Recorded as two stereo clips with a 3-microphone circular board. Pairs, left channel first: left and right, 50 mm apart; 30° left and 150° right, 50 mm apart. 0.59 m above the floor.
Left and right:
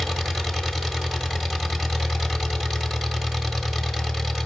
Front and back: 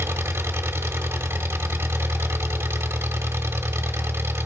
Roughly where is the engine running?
Behind.